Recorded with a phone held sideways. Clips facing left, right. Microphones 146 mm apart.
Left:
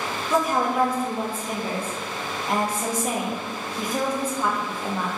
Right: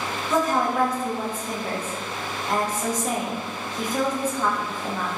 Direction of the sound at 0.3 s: 10° left (ahead or behind).